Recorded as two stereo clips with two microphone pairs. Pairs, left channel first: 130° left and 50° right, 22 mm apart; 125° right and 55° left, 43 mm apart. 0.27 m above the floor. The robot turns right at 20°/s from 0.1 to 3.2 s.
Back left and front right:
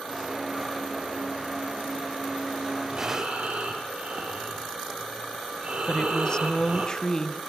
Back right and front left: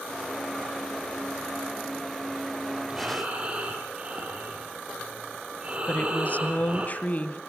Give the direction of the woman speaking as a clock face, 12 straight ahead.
6 o'clock.